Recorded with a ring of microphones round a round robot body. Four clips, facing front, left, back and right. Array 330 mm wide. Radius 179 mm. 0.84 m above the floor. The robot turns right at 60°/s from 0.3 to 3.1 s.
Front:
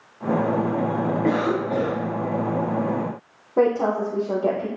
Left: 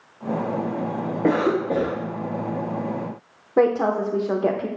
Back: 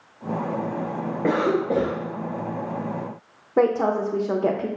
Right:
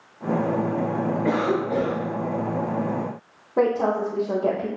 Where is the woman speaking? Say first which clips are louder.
Left 2 dB, even; 130° left, 0.6 m.